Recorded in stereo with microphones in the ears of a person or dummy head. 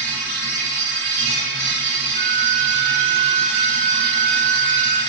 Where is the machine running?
30° right (ahead or behind), 1.1 m.